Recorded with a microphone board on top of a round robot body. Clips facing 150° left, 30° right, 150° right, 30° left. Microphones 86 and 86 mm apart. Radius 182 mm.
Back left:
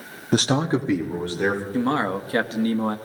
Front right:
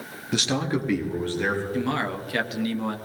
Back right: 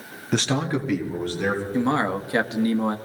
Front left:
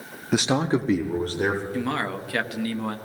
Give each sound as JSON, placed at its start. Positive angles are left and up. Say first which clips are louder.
{"t": 0.3, "sound": "a man speaking", "louder": "back left 5 dB, front left 2 dB", "azimuth_deg": 115, "distance_m": 0.9}
{"t": 1.7, "sound": "a man speaking", "louder": "back left 4 dB, back right 5 dB", "azimuth_deg": 165, "distance_m": 1.4}